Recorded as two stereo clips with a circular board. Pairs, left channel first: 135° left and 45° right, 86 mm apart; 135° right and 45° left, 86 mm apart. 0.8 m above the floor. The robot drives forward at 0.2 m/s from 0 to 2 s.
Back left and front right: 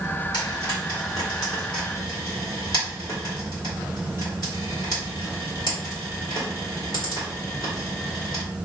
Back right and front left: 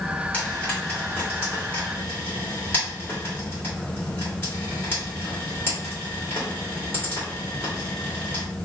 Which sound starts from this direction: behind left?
Frying, at 0.3 s.